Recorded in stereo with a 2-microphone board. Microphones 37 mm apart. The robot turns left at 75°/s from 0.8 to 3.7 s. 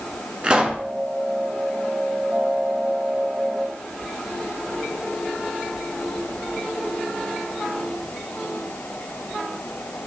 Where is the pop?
25° right (ahead or behind), 0.6 m; by 0.8 s 20° right (ahead or behind), 0.6 m.